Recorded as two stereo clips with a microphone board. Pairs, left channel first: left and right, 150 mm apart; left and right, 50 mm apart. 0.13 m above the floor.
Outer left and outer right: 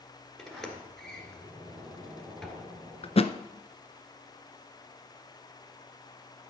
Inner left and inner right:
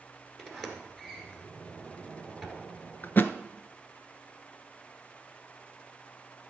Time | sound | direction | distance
0.4 | a sliding door | 5° left (ahead or behind) | 1.8 m
3.0 | a thud | 40° left (ahead or behind) | 0.5 m